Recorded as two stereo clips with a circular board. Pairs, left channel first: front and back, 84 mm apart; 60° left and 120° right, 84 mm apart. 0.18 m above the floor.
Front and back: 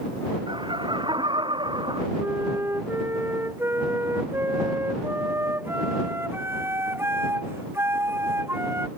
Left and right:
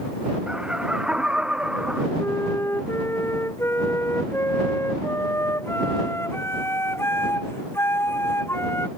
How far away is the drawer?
No drawer in this recording.